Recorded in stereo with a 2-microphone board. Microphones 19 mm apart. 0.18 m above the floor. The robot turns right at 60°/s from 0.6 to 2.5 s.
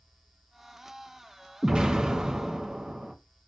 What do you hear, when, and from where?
1.6 s an explosion: 120° right, 1.4 m; by 3.1 s 70° right, 1.4 m